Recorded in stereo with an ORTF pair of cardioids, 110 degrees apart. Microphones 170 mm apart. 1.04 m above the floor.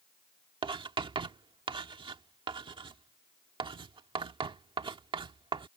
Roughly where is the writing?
Ahead right.